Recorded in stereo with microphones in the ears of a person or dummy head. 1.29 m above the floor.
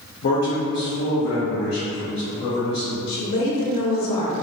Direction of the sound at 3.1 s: 70° left (ahead or behind).